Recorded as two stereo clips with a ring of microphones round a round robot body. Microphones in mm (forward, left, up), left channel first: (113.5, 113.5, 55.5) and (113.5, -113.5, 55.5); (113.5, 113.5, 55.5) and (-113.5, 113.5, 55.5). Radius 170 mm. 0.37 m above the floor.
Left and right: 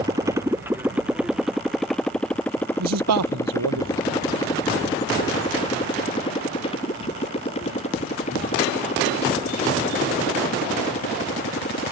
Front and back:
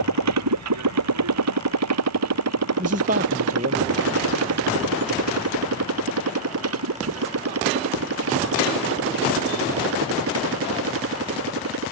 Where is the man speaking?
115° right.